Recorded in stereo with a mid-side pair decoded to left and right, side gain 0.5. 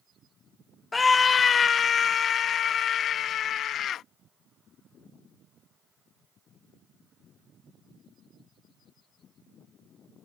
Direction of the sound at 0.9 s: 25° left.